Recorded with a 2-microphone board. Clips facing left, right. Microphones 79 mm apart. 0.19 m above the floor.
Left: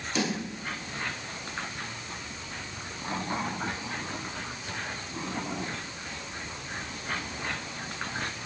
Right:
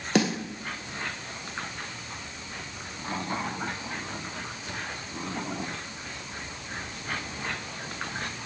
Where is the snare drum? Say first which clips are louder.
Right 5 dB; 65° right (ahead or behind), 3.5 m.